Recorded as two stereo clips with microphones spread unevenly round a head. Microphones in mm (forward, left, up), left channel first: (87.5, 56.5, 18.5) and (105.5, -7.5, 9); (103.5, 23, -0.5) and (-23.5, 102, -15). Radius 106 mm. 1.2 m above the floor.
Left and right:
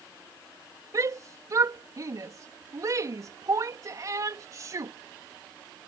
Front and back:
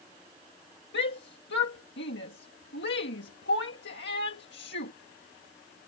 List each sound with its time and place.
0.9 s a shout: 40° right